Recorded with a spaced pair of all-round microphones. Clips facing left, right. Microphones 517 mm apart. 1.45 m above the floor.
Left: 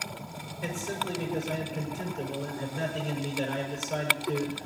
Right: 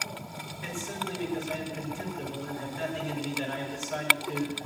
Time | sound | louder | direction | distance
0.6 | a man speaking | left 3 dB | 80° left | 5 m